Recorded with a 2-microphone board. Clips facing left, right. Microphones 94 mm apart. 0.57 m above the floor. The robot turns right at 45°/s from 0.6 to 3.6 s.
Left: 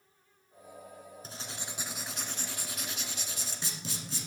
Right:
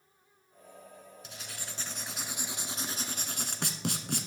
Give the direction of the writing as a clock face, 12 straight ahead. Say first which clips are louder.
Left 2 dB; 7 o'clock.